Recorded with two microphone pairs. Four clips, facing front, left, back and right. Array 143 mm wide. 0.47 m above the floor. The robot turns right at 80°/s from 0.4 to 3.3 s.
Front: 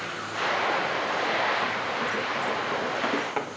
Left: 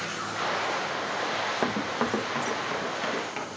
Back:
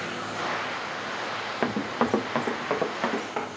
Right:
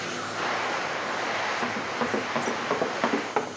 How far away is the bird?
No bird in this recording.